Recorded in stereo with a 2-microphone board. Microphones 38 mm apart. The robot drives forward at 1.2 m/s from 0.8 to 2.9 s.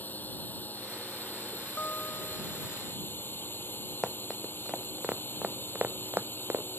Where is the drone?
50° left (ahead or behind); by 6.8 s 65° left (ahead or behind).